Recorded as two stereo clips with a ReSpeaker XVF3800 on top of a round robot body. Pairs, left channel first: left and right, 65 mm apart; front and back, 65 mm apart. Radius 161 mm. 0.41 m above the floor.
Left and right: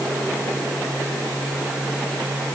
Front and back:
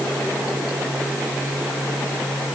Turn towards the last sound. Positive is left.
No sound to turn to.